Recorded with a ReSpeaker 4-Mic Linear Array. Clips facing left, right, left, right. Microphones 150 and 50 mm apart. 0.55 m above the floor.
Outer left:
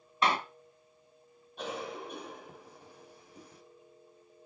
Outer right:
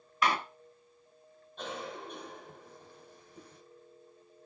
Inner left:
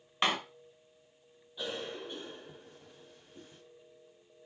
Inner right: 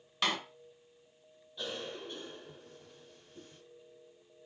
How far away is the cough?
About 3 m.